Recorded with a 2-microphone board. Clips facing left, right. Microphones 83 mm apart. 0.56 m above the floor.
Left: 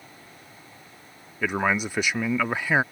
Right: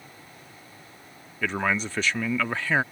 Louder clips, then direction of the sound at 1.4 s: Left 2 dB; 15° left (ahead or behind).